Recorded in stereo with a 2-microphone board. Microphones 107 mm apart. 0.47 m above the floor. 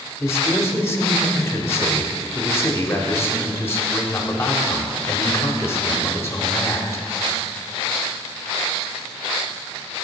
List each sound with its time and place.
0.2 s a man speaking: 25° left (ahead or behind), 0.9 m